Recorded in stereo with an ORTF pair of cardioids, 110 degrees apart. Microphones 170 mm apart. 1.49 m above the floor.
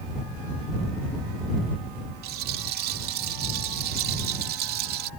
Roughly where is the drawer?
I don't hear a drawer.